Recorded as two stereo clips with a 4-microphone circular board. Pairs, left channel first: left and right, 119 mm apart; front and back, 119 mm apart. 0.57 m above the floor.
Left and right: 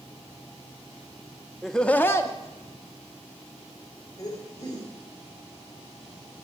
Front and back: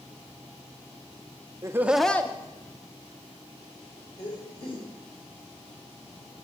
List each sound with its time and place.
1.6 s laughter: 175° left, 0.6 m; by 4.8 s 30° left, 2.5 m